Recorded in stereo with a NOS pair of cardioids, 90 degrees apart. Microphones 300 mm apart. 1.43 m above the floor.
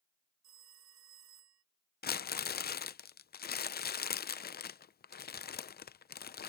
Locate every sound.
0.4 s a phone ringing: 65° right
2.0 s crumpling: 35° left